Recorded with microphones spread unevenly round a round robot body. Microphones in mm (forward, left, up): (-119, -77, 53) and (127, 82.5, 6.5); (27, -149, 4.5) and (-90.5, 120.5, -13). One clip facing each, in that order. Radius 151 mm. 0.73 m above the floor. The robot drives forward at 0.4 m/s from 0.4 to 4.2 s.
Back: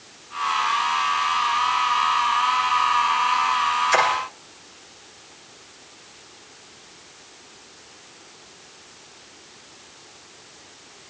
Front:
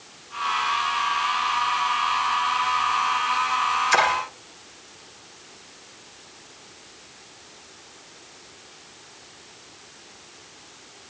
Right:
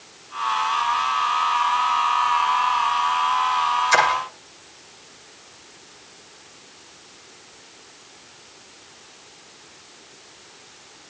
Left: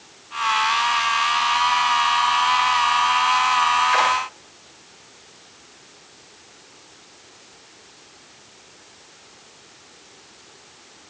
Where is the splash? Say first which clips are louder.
Back 2 dB, right 4 dB; 35° right, 9.5 m.